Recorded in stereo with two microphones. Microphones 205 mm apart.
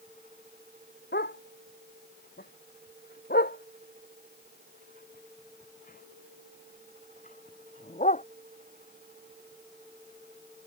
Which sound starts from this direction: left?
A dog barking, at 1.1 s.